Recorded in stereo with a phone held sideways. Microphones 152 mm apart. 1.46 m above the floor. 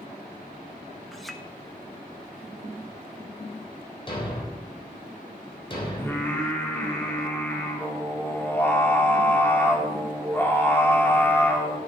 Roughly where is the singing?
Centre.